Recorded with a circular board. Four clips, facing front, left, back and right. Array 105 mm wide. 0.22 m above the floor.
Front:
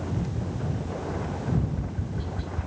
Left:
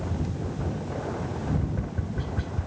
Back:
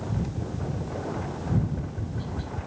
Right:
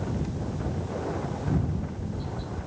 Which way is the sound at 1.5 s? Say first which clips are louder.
Even, back 2 dB; 90° left.